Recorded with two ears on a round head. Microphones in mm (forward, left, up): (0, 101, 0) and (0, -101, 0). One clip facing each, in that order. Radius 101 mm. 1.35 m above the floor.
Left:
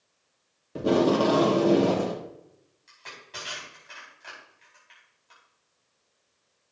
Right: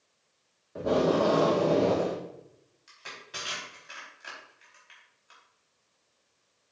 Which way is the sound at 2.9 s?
15° right (ahead or behind).